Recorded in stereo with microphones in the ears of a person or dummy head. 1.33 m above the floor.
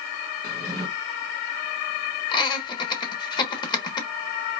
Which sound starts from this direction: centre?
A drawer, at 0.4 s.